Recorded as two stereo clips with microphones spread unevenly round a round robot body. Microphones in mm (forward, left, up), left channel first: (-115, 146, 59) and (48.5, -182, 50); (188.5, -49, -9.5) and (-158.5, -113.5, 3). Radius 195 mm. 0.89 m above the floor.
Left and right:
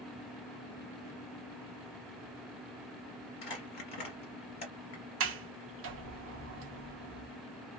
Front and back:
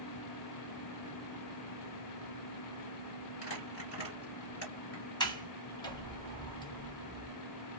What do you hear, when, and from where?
3.4 s crumpling: 75° left, 2 m
5.2 s a sliding door: 55° right, 0.9 m